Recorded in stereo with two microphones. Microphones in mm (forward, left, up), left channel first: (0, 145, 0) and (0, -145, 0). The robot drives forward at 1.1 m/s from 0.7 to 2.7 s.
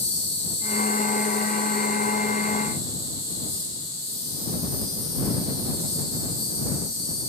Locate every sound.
0.0 s an insect: 40° left (ahead or behind), 0.9 m; by 7.3 s 10° left (ahead or behind), 3 m